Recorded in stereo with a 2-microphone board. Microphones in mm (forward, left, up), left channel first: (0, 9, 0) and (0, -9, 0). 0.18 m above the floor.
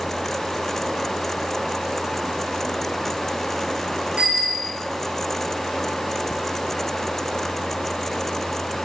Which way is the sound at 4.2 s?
75° right (ahead or behind).